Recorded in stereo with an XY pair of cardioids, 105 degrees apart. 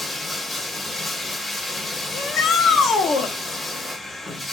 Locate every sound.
0.0 s running water: 35° left, 1.1 m
2.1 s a shout: 65° left, 0.7 m